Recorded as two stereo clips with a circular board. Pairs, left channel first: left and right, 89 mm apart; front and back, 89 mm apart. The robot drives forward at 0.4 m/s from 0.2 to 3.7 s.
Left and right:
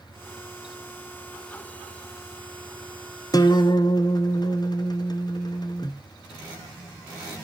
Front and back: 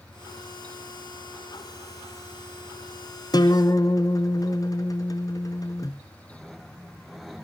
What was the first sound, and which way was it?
A guitar, 45° left.